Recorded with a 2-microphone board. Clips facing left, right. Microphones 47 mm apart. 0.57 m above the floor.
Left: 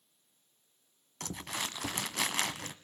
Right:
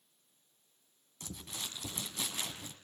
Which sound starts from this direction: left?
Crumpling, at 1.2 s.